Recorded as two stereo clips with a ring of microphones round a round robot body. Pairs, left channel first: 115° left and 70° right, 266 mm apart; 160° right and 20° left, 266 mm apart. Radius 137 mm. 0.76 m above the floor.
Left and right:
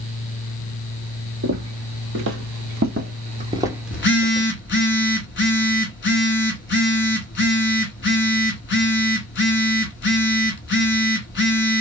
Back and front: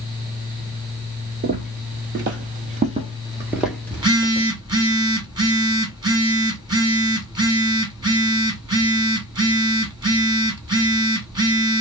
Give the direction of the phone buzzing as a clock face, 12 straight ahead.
9 o'clock.